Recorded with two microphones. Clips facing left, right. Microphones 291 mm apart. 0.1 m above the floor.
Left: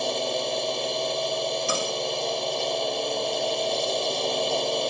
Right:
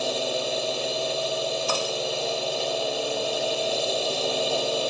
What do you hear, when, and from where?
0.0 s a drone: 5° right (ahead or behind)
1.7 s cutlery clinking: 20° left (ahead or behind)